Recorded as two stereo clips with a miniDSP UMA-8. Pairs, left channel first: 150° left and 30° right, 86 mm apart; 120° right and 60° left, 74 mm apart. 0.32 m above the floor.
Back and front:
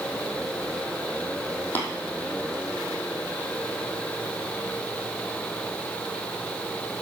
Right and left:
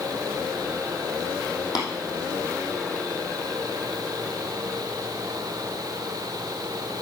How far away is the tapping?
About 2.5 m.